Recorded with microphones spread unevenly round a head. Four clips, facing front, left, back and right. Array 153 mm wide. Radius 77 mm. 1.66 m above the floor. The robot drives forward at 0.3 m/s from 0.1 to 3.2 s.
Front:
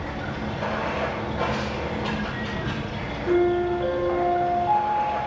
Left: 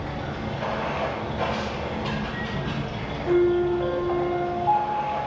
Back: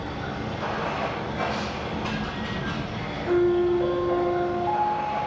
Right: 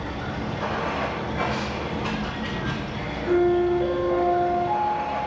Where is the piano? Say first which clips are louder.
Even, even; 80° left, 0.7 m.